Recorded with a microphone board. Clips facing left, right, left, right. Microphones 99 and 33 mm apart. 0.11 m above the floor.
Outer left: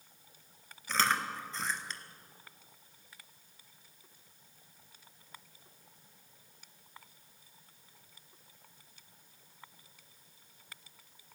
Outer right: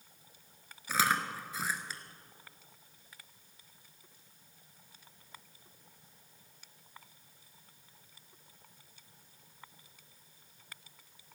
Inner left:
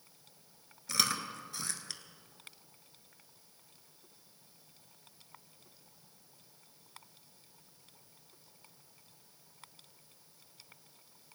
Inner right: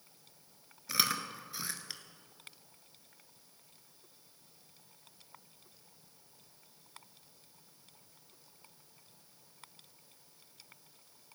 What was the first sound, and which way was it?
Chewing, 10° right (ahead or behind).